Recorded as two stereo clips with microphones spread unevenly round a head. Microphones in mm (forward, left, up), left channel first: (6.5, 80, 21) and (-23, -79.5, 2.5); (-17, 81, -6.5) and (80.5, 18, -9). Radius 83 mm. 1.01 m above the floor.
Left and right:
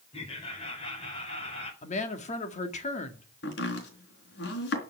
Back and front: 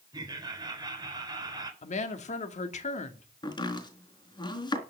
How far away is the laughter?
About 4 m.